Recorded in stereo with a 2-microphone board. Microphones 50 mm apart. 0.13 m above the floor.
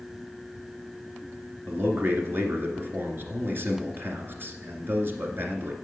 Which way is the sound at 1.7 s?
45° right (ahead or behind).